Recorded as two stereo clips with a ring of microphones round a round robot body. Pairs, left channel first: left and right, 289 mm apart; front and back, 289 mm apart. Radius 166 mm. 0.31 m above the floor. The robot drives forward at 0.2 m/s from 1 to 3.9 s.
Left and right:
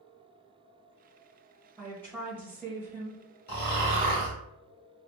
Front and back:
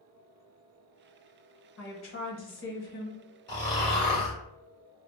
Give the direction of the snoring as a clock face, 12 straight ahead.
10 o'clock.